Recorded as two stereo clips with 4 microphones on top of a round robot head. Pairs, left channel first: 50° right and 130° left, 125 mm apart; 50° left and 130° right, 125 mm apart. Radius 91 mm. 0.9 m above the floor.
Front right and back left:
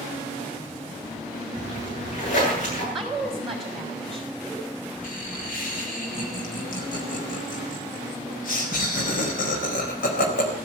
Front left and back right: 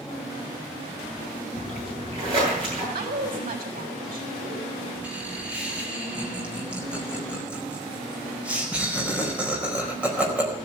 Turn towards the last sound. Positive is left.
turn(degrees=-50)